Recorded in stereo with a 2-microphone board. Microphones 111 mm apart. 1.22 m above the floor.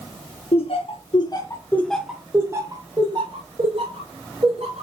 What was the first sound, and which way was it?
Laughter, 60° left (ahead or behind).